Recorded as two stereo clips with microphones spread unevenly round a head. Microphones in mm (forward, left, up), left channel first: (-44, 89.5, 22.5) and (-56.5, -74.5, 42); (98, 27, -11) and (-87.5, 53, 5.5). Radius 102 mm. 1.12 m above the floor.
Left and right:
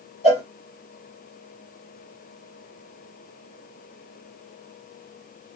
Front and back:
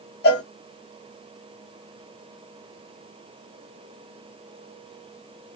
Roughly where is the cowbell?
Ahead.